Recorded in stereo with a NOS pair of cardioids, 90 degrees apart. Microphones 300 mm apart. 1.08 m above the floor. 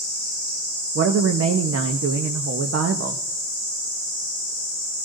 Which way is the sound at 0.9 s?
50° right.